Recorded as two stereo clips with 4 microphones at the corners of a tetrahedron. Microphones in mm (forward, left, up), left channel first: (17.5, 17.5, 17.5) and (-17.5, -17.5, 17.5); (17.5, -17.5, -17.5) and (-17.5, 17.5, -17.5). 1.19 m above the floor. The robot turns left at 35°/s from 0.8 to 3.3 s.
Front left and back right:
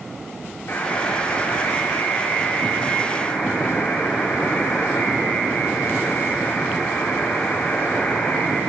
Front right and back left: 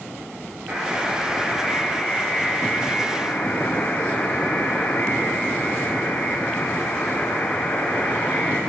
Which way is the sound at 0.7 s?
85° left.